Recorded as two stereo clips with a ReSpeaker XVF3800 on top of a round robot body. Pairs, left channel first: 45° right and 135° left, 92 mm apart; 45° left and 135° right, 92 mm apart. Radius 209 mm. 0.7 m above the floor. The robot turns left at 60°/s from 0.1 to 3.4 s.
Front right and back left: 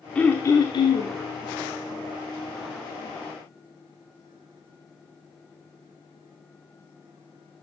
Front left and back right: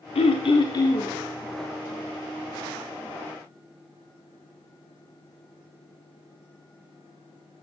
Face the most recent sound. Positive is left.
turn(degrees=-160)